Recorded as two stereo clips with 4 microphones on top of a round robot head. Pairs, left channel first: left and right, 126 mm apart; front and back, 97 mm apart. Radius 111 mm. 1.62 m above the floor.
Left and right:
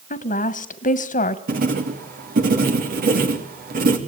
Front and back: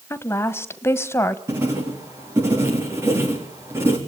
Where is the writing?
105° right, 3.5 m.